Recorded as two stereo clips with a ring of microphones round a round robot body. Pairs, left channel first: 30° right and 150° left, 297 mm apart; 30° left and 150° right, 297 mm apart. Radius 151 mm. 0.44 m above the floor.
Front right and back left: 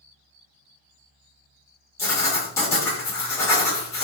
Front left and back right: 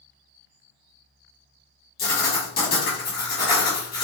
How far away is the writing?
About 1.3 m.